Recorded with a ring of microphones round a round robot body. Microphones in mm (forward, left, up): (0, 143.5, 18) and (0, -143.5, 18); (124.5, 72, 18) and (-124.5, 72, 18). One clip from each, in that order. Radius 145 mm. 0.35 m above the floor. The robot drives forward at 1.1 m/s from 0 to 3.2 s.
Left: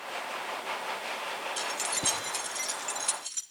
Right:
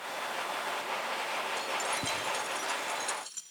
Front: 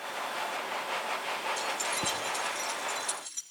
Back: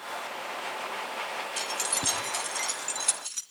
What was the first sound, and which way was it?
Keys jangling, 135° left.